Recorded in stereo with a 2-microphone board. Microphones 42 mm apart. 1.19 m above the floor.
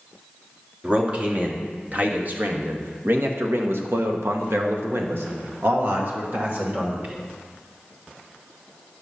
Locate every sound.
0.8 s a man speaking: 30° right (ahead or behind), 2 m; by 7.2 s 40° right (ahead or behind), 2.0 m